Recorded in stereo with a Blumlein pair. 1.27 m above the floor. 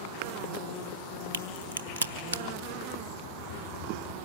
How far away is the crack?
About 1.0 m.